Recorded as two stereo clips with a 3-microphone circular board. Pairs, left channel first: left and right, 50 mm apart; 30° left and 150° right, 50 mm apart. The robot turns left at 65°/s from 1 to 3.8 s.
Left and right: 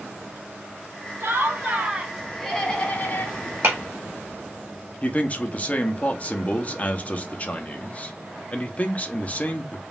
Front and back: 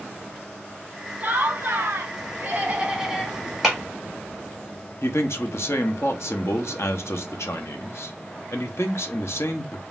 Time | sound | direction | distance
1.2 | laughter | 115° right | 1.8 m
3.6 | a clap | 65° right | 1.9 m
5.0 | a man speaking | 35° left | 0.8 m